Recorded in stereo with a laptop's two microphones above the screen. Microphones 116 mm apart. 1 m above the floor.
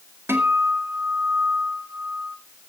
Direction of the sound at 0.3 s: 20° right (ahead or behind).